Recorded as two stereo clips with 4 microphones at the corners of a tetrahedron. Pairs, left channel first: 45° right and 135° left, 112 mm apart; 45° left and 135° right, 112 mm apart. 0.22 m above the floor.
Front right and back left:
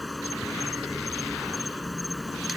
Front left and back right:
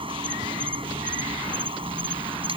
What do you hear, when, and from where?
0.0 s an insect: 135° right